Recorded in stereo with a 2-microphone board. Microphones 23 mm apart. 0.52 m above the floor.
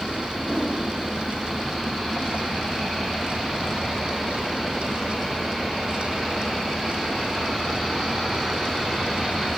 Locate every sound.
0.4 s a whoosh: 50° left (ahead or behind), 7.5 m